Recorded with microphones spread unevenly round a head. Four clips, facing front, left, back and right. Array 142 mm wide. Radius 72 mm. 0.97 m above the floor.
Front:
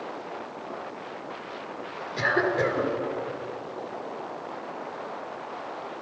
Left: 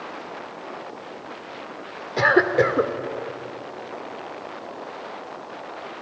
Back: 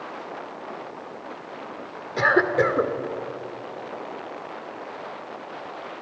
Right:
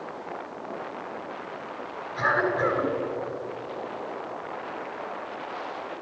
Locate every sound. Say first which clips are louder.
2.2 s a cough: left 6 dB, back 5 dB; 115° left, 3 m